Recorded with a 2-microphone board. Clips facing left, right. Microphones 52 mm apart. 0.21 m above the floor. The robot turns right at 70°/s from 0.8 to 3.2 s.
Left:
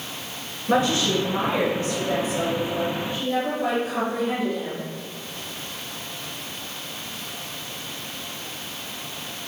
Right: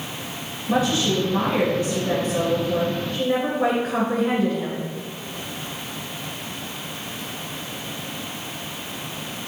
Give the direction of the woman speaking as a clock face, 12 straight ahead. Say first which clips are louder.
Even; 8 o'clock.